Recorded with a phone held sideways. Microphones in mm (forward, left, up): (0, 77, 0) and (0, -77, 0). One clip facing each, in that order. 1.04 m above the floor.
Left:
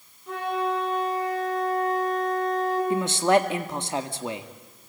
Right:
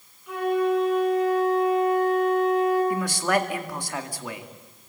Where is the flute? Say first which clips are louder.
Right 5 dB; 35° left (ahead or behind), 10 m.